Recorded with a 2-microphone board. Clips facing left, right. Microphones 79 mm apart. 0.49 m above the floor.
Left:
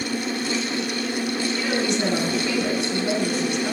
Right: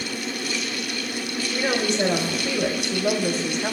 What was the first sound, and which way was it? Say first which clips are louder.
A woman speaking: right 3 dB; 55° right (ahead or behind).